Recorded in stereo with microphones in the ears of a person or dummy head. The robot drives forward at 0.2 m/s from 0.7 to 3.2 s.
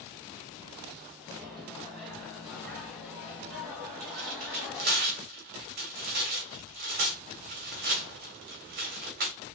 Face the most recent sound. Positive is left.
turn(degrees=-40)  # may be behind; listen again after turning